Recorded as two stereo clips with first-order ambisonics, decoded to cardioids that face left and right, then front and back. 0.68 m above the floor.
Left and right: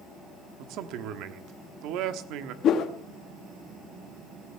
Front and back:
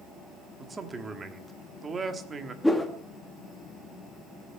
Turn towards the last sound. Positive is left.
turn(degrees=80)